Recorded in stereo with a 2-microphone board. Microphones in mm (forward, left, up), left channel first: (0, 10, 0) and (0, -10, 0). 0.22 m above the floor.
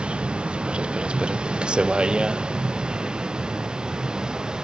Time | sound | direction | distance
0.0 | a vehicle | 75° right (ahead or behind) | ?